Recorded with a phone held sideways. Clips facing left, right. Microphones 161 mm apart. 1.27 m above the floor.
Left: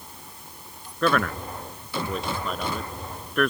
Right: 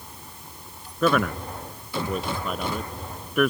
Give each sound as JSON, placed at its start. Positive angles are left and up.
{"t": 1.0, "sound": "a man speaking", "side_deg": -5}